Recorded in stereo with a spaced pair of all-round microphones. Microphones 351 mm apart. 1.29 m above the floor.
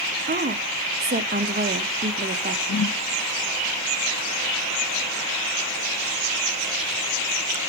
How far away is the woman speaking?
About 1.0 m.